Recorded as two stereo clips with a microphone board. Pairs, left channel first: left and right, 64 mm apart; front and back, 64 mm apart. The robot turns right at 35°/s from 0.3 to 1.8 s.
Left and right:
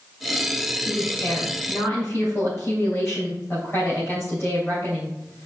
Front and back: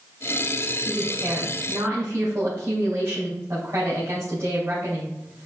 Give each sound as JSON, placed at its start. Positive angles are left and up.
{"t": 0.8, "sound": "a woman speaking", "azimuth_deg": 110, "distance_m": 3.5}